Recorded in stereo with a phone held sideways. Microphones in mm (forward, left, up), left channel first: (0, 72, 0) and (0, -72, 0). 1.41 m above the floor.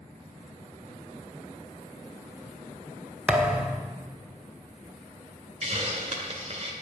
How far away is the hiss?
About 2 m.